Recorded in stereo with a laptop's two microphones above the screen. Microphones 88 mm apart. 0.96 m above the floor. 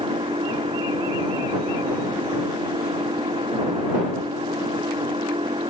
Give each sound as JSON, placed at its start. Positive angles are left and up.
{"t": 0.0, "sound": "an engine running", "side_deg": -80}